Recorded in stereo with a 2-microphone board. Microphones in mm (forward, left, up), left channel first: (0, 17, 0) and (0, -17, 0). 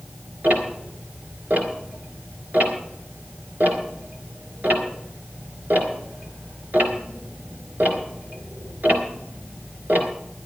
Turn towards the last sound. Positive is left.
turn(degrees=-60)  # may be behind; listen again after turning